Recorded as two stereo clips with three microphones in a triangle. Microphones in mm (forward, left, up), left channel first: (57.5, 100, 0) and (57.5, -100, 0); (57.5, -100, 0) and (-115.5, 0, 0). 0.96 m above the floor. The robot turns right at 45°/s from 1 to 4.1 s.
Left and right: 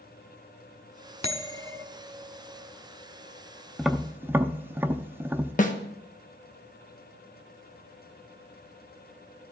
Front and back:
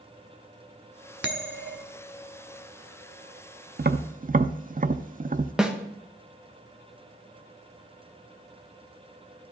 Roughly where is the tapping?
Behind.